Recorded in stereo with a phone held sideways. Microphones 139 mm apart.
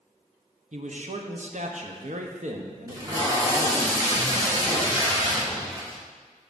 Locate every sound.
0.7 s a man speaking: 60° right (ahead or behind), 0.7 m
2.9 s tape being pulled: 25° right (ahead or behind), 1.6 m